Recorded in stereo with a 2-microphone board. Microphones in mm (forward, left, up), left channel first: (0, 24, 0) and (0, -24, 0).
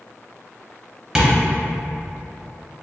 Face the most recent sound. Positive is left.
turn(degrees=-15)  # may be behind; listen again after turning